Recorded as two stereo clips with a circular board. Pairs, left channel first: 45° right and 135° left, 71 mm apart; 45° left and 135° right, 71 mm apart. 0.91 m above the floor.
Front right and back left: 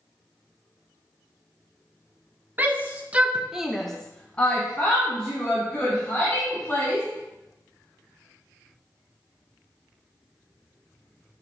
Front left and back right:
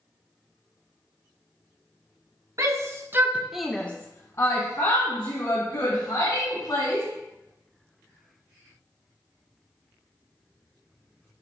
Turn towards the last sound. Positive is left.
turn(degrees=20)